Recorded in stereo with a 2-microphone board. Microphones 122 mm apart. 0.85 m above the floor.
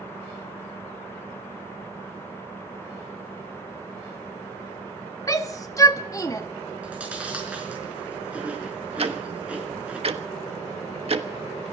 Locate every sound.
5.3 s a shout: 30° left (ahead or behind), 1.5 m
6.8 s chewing: 10° right (ahead or behind), 5 m
9.0 s ticking: 55° right (ahead or behind), 1.2 m